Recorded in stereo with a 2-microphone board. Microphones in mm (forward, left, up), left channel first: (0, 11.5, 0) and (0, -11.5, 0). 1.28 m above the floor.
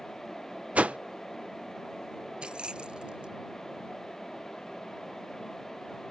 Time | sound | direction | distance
0.8 | a whoosh | 80° right | ?
2.4 | keys jangling | 40° right (ahead or behind) | ?